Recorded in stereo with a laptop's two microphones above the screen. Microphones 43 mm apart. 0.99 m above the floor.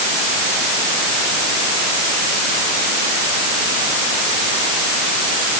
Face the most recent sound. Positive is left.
No sound to turn to.